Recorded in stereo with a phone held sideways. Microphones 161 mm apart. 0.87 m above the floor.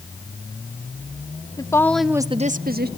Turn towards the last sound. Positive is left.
turn(degrees=-75)  # may be behind; listen again after turning